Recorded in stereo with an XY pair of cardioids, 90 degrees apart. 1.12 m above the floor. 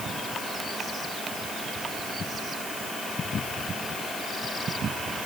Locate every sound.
Only background noise.